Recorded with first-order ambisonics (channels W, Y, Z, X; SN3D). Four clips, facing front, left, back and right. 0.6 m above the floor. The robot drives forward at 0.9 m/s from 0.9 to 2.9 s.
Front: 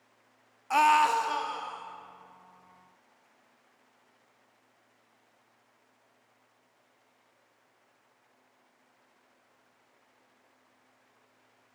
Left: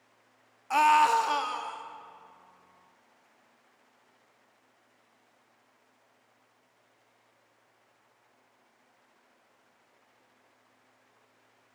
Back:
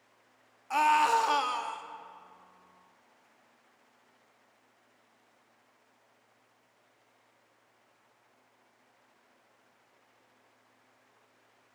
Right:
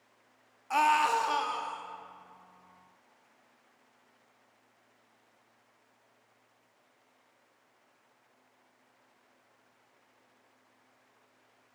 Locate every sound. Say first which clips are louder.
0.7 s a scream: left 4 dB, front 2 dB; 35° left, 0.6 m; by 1.8 s 170° left, 0.9 m